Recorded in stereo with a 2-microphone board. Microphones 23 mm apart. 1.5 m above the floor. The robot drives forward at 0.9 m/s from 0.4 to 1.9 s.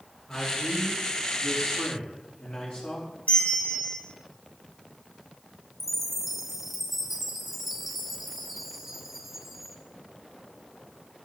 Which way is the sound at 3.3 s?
60° left (ahead or behind).